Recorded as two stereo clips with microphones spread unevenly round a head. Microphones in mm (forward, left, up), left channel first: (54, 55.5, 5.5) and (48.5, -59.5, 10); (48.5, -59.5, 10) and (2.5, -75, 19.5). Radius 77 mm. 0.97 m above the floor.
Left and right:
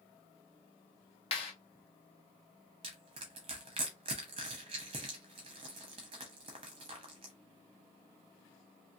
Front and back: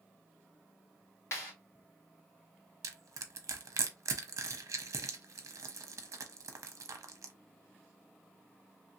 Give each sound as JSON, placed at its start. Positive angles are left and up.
{"t": 1.3, "sound": "a clap", "azimuth_deg": 50, "distance_m": 1.4}
{"t": 2.8, "sound": "crushing", "azimuth_deg": -155, "distance_m": 0.6}